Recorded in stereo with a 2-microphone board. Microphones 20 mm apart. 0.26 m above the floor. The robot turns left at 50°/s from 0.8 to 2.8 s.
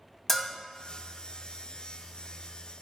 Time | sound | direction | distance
0.3 | a bell | 15° left (ahead or behind) | 0.7 m